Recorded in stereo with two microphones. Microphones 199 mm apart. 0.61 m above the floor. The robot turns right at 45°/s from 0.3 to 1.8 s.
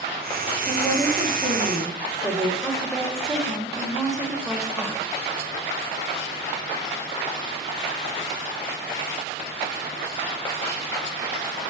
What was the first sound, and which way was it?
A woman speaking, 5° left (ahead or behind).